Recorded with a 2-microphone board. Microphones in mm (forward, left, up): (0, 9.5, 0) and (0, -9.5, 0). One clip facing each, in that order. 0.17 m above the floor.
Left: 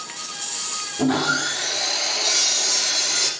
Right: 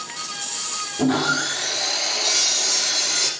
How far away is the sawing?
About 2.5 m.